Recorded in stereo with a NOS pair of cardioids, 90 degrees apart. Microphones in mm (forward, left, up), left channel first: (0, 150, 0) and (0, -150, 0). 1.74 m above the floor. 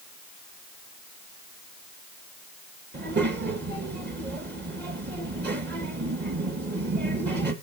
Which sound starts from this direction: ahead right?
A child speaking, at 2.9 s.